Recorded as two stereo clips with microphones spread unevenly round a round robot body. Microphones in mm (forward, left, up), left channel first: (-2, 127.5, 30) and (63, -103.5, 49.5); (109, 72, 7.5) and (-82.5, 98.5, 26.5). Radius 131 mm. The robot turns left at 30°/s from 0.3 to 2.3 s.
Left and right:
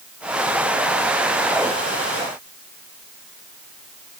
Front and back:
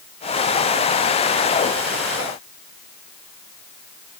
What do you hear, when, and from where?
Only background noise.